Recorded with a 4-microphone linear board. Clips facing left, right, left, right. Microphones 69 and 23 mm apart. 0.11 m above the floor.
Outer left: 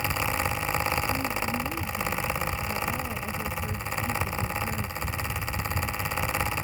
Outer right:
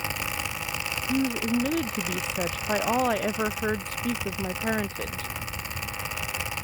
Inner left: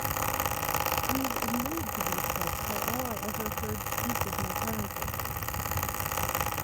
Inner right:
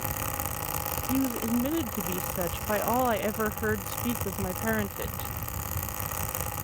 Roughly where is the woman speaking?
Right.